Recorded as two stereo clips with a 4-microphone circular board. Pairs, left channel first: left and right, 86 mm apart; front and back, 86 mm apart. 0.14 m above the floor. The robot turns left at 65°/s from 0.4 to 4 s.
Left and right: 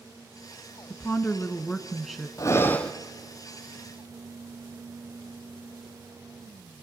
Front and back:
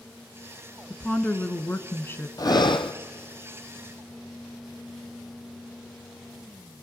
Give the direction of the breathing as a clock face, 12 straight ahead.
11 o'clock.